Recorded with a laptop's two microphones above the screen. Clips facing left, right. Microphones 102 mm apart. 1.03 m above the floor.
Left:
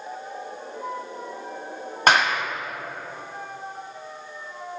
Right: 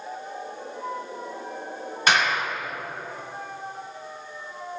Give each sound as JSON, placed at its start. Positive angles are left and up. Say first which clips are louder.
{"t": 2.1, "sound": "a clap", "louder": "left 3 dB", "side_deg": 55, "distance_m": 1.2}